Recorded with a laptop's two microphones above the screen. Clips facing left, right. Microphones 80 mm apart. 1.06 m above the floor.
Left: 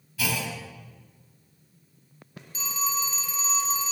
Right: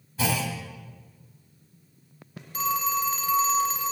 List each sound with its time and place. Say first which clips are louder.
0.2 s a clunk: right 3 dB; 30° right (ahead or behind), 1.0 m
2.5 s a phone ringing: right 5 dB; 50° right (ahead or behind), 0.9 m